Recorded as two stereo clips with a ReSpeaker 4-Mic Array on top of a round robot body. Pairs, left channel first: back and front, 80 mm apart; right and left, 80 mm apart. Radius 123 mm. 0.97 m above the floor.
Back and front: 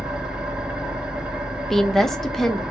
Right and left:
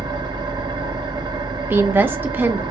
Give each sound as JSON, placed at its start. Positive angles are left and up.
{"t": 0.0, "sound": "an engine running", "azimuth_deg": 75, "distance_m": 1.1}
{"t": 1.7, "sound": "a woman speaking", "azimuth_deg": 100, "distance_m": 0.7}